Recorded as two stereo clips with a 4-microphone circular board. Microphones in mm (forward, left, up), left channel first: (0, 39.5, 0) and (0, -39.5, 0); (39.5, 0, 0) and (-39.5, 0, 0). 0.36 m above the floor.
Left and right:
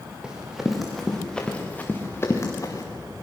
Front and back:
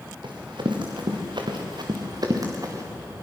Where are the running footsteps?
170° right, 4 m; by 2.8 s 135° left, 3.5 m.